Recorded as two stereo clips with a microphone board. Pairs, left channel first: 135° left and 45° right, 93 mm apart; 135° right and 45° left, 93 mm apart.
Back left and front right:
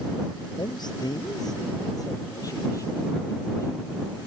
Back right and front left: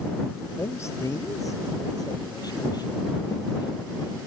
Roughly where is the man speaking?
Behind.